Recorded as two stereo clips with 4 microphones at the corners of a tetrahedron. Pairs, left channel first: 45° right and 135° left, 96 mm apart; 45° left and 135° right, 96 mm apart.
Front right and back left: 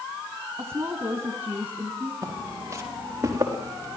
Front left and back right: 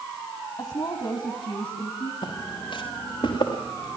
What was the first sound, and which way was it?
A woman speaking, 80° left.